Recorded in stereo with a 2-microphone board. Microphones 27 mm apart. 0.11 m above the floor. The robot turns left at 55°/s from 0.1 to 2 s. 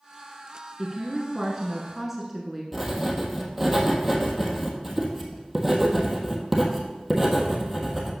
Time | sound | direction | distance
0.8 | a woman speaking | 20° right (ahead or behind) | 1.1 m
2.7 | writing | 10° right (ahead or behind) | 1.4 m